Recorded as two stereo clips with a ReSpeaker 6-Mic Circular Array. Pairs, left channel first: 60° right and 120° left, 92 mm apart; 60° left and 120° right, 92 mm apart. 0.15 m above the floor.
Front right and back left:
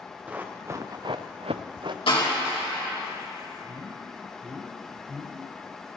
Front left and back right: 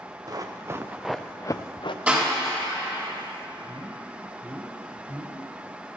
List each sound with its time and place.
0.3 s running footsteps: 165° right, 1.3 m; by 2.0 s 85° left, 1.0 m
2.1 s a door slam: 50° right, 4.5 m
3.6 s a man speaking: 170° left, 1.6 m